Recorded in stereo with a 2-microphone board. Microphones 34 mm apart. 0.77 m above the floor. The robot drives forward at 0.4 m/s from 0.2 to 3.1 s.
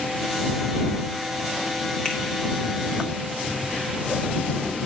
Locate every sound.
2.0 s a finger snap: 30° left (ahead or behind), 1.4 m; by 2.2 s 25° left (ahead or behind), 1.5 m